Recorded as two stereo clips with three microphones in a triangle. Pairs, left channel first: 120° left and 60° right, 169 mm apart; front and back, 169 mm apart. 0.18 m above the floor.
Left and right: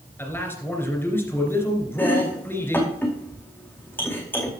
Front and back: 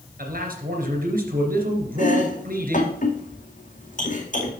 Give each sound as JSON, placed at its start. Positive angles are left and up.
{"t": 0.2, "sound": "a man speaking", "azimuth_deg": -165, "distance_m": 2.5}
{"t": 2.0, "sound": "chopping", "azimuth_deg": 40, "distance_m": 2.0}